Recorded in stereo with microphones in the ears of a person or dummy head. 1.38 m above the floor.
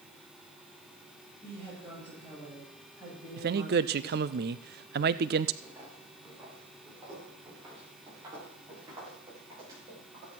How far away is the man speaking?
About 0.6 m.